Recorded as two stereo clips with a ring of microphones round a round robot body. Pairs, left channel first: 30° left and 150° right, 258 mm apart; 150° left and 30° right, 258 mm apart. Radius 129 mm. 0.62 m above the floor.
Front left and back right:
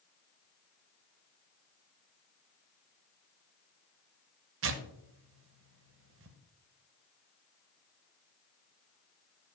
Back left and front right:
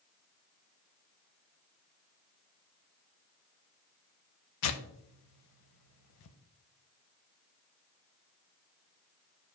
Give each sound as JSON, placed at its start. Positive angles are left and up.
{"t": 4.6, "sound": "tearing paper", "azimuth_deg": 170, "distance_m": 0.7}